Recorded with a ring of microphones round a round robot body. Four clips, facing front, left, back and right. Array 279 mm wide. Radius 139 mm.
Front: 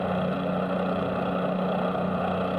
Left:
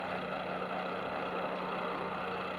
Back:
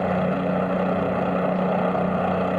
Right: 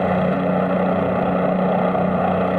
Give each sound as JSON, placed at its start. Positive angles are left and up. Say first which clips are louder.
{"t": 0.0, "sound": "a helicopter", "louder": "right 19 dB, back 4 dB", "azimuth_deg": -105}